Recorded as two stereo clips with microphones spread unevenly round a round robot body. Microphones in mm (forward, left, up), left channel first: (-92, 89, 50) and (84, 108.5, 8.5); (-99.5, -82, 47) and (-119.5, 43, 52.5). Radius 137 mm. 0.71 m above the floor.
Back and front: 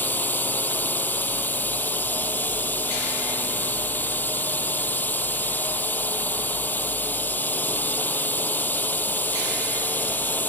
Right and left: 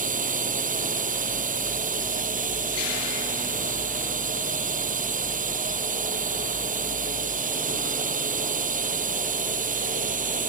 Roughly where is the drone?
Left.